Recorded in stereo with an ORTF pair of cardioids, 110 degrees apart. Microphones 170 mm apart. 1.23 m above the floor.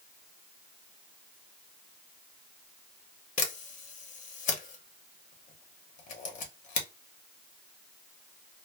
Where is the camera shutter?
50° left, 0.8 m.